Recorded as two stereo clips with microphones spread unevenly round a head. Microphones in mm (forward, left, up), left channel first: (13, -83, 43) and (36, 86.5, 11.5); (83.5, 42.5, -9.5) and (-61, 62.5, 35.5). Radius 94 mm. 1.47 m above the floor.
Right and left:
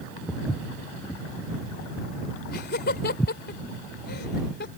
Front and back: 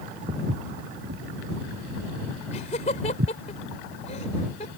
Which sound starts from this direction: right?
Laughter, at 2.5 s.